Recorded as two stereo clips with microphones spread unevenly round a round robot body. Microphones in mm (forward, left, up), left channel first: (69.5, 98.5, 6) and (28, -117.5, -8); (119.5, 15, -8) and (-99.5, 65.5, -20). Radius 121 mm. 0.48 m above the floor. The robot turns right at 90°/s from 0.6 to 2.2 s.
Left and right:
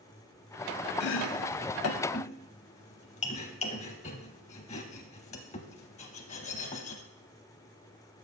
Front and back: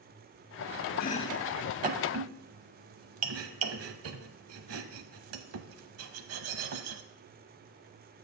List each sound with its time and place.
1.0 s chopping: 35° left, 0.7 m; by 7.0 s 145° left, 0.7 m